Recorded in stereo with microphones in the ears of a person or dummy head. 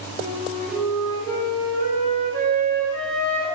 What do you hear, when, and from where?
0.2 s a flute: 85° left, 3 m